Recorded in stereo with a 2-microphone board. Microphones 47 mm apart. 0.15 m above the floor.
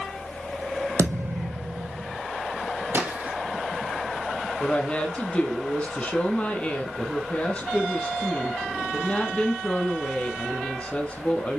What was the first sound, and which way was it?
A thud, 80° right.